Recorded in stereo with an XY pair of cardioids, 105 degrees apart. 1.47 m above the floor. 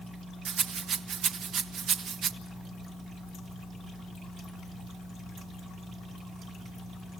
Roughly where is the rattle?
Ahead right.